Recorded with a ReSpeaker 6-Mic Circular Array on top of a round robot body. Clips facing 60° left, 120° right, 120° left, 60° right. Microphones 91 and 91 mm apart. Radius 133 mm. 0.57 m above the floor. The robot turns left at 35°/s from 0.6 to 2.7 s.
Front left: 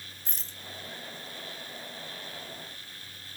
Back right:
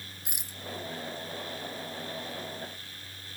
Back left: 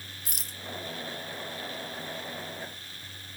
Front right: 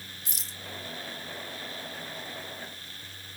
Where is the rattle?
165° left.